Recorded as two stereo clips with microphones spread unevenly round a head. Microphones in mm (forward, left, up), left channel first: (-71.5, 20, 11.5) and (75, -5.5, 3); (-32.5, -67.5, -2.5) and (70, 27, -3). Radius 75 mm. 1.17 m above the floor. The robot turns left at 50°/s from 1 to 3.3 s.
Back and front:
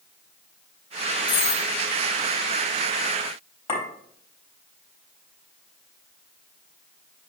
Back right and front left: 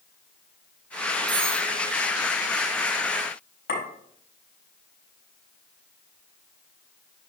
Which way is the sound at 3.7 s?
135° right.